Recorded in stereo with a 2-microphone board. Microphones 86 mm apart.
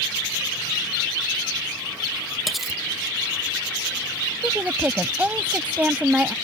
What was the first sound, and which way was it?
Cutlery clinking, centre (ahead or behind).